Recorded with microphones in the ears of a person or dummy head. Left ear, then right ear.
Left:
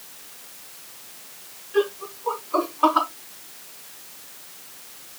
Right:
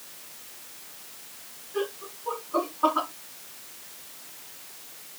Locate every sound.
1.7 s laughter: 75° left (ahead or behind), 3.5 m